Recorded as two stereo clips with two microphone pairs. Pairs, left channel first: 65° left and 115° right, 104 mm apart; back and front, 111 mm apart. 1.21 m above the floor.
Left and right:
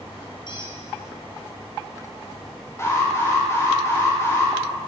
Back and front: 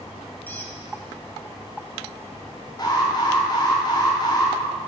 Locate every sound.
0.5 s a squeak: 105° left, 3 m
2.8 s an alarm: 130° left, 5 m